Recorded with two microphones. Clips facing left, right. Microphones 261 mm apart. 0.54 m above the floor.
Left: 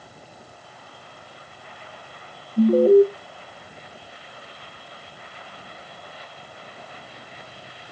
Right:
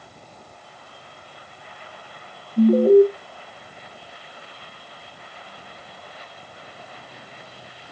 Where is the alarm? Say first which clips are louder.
Right 1 dB; 10° right (ahead or behind), 0.5 m.